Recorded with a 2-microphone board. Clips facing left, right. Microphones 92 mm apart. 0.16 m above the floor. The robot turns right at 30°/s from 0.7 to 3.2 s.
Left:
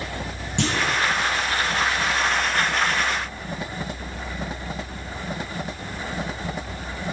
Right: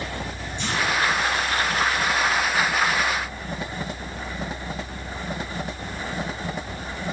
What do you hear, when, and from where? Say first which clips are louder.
0.6 s a clunk: left 2 dB; 65° left (ahead or behind), 5 m; by 1.0 s 60° left (ahead or behind), 5 m